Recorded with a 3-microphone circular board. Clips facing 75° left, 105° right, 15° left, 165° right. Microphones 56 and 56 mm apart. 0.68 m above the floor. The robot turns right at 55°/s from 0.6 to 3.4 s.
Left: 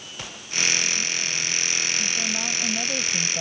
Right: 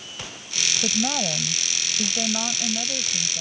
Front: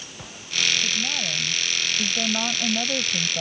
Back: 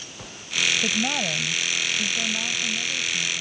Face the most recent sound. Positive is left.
turn(degrees=20)